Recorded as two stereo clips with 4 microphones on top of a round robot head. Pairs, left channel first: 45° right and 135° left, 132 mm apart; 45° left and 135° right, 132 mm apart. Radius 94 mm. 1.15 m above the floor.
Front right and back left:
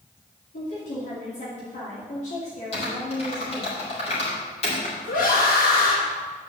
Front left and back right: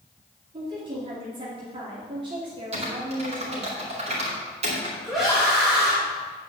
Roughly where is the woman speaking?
Right.